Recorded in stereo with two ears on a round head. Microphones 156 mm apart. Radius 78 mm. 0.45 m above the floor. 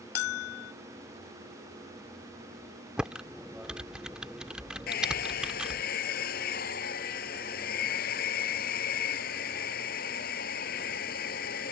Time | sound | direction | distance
0.1 | a bell | 65° left (ahead or behind) | ?
3.0 | typing on a keyboard | 5° right (ahead or behind) | ?
4.9 | a hair dryer | 55° left (ahead or behind) | ?